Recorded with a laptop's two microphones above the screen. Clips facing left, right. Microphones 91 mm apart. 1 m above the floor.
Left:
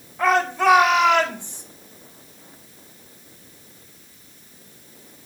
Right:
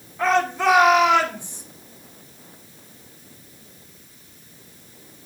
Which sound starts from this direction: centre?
A shout, at 0.2 s.